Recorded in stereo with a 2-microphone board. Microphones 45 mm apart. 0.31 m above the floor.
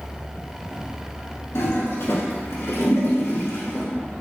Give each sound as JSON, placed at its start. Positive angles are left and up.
{"t": 1.6, "sound": "a toilet flushing", "side_deg": 75, "distance_m": 1.0}